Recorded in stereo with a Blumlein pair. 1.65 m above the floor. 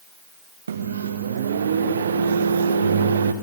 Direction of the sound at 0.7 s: 65° right.